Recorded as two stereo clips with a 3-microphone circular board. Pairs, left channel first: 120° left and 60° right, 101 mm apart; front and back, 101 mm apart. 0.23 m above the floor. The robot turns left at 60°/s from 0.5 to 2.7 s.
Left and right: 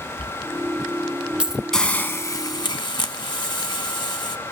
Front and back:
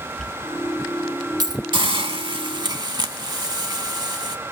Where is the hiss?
155° right, 0.6 m; by 4.4 s 145° left, 0.6 m.